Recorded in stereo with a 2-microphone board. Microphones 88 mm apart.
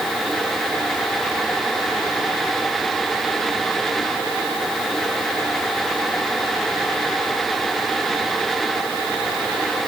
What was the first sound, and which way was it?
Only background noise.